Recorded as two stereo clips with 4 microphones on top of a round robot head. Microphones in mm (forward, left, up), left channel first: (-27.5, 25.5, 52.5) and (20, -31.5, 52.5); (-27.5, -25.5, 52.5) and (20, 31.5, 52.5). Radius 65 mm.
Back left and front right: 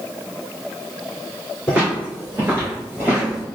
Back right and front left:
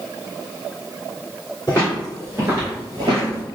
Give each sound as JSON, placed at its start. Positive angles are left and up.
{"t": 1.7, "sound": "footsteps", "azimuth_deg": -120, "distance_m": 1.1}